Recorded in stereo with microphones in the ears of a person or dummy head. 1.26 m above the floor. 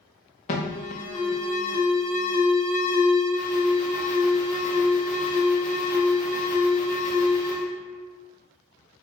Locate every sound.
0.5 s an alarm: 40° left (ahead or behind), 0.6 m